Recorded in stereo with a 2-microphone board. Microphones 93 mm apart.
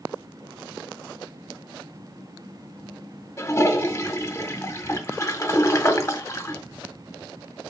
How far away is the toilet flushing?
About 0.6 m.